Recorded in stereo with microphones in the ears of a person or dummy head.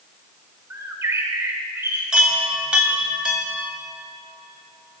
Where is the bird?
10° right (ahead or behind), 1.3 m.